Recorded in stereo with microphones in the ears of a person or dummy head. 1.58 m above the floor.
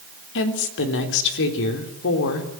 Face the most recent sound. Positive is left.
turn(degrees=70)  # may be behind; listen again after turning